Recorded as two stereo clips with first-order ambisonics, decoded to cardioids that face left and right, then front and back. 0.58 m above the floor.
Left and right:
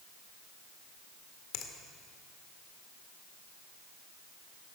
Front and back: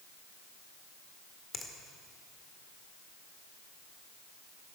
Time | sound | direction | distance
1.5 | a finger snap | 70° left | 1.7 m